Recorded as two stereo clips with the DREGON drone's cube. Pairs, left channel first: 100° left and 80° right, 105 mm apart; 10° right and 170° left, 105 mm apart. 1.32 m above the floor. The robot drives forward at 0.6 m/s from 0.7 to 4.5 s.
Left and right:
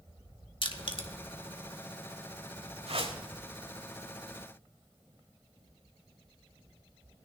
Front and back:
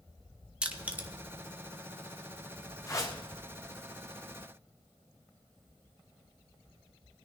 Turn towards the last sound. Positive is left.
turn(degrees=-85)